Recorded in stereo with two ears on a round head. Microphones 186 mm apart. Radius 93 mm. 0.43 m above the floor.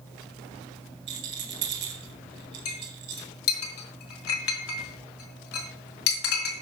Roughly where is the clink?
Left.